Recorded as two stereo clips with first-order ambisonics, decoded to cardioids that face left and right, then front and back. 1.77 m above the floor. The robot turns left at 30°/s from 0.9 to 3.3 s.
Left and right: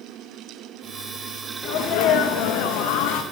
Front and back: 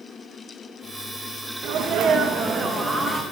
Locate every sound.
1.6 s a sneeze: 135° left, 1.1 m; by 3.2 s 90° left, 1.1 m